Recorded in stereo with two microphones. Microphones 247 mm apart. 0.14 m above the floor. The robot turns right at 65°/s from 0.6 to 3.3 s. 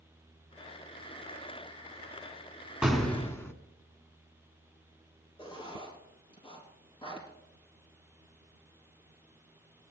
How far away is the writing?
About 4 m.